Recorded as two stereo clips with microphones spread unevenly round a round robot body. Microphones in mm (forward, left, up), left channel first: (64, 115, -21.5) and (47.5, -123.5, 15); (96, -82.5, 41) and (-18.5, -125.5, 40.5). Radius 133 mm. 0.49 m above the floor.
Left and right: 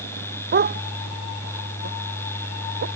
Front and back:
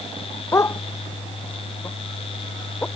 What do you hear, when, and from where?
0.5 s a dog barking: 45° right; by 2.9 s 55° right